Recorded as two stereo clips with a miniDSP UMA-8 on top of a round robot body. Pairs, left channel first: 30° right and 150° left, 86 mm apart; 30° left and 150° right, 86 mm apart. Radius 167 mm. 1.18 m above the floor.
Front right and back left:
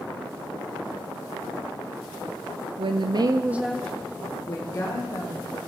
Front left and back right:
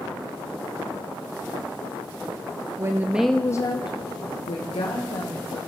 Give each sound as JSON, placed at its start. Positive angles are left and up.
{"t": 2.8, "sound": "a woman speaking", "azimuth_deg": 155, "distance_m": 0.8}